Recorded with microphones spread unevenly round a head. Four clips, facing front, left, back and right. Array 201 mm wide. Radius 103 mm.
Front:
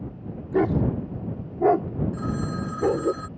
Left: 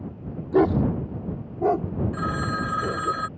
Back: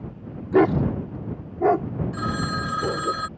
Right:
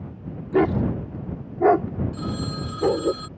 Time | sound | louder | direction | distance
0.5 | a dog barking | left 1 dB, back 4 dB | straight behind | ?
2.1 | a phone ringing | left 3 dB, back 2 dB | 145° left | ?